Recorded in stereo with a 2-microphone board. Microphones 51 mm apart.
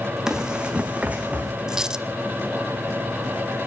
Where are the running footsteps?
10° right (ahead or behind), 2.0 m; by 1.5 s 30° right (ahead or behind), 2.5 m.